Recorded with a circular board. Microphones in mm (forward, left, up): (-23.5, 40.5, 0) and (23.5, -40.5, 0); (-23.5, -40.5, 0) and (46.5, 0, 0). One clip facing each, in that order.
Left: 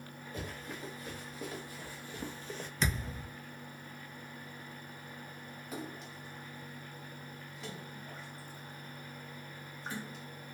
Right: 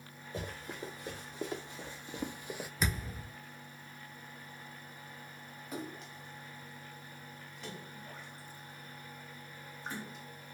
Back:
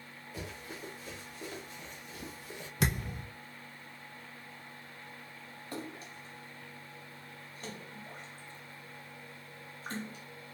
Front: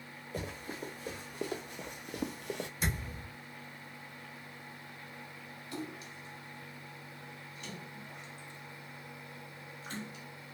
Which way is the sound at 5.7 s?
150° right.